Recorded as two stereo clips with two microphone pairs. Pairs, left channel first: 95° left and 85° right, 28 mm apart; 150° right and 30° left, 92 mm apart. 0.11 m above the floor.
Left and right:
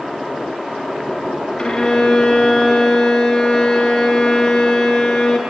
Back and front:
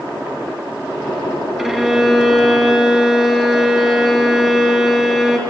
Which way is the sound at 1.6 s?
115° left.